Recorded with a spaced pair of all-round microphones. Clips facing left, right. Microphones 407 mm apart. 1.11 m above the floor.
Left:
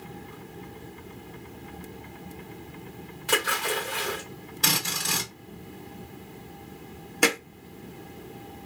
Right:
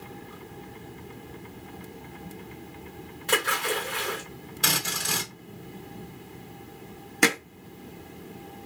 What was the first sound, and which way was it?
A splash, 20° left (ahead or behind).